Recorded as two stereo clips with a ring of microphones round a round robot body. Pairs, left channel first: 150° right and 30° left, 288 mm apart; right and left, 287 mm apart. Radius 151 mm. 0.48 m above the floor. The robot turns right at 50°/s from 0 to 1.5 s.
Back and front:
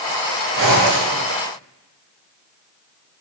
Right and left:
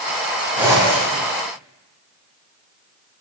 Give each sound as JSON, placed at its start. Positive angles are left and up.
{"t": 0.6, "sound": "a zipper", "azimuth_deg": 5, "distance_m": 1.9}